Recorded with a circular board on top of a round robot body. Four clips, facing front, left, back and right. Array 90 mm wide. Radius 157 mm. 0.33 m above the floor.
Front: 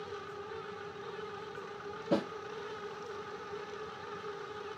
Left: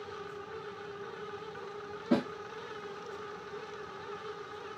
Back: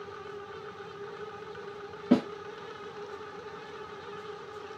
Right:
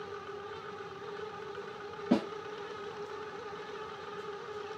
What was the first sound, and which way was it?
A snare drum, 165° right.